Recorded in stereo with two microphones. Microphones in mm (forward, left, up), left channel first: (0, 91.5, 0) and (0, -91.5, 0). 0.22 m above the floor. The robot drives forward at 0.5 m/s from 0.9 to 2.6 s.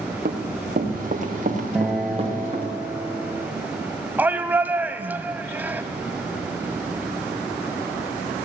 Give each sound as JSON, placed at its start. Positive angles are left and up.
{"t": 0.2, "sound": "running footsteps", "side_deg": -55, "distance_m": 3.5}
{"t": 1.8, "sound": "a guitar", "side_deg": 0, "distance_m": 2.5}
{"t": 4.2, "sound": "a shout", "side_deg": -10, "distance_m": 1.0}